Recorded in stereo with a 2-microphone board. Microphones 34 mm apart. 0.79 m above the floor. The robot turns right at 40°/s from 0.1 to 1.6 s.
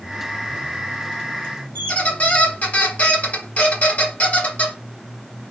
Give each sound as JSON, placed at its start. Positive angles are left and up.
{"t": 1.8, "sound": "a squeak", "side_deg": 45, "distance_m": 0.8}